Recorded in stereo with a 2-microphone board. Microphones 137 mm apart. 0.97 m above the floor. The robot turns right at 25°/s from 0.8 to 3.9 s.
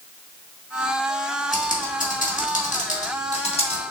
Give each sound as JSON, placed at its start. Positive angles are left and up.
{"t": 1.5, "sound": "typing on a keyboard", "side_deg": 75, "distance_m": 1.6}